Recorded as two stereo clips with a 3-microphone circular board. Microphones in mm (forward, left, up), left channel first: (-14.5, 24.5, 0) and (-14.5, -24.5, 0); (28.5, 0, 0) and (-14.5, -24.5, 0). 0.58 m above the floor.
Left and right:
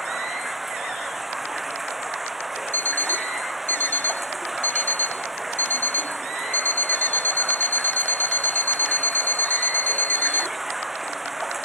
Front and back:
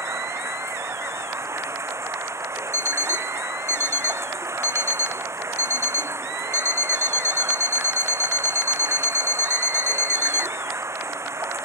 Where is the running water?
175° right.